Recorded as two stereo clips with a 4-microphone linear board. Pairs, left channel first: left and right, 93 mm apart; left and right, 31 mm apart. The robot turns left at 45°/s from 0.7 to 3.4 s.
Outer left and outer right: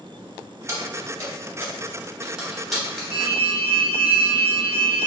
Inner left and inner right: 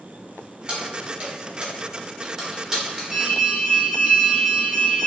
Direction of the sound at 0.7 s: 30° right (ahead or behind).